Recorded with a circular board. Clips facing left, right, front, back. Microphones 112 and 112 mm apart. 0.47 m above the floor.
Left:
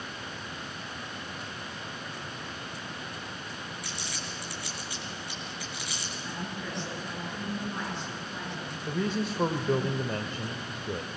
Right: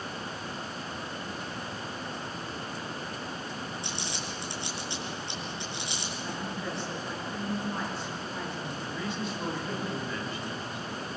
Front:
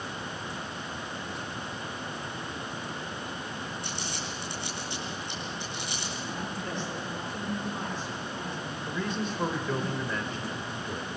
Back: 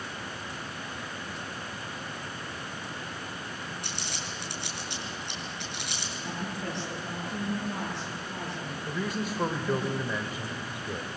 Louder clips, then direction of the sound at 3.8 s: Right 3 dB, front 2 dB; 155° right.